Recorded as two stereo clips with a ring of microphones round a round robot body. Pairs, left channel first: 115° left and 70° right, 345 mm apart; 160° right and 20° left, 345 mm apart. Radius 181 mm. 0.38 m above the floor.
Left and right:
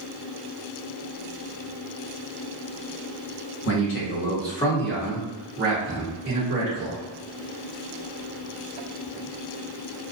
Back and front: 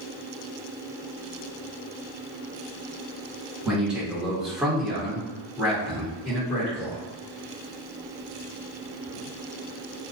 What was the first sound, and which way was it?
A man speaking, 110° left.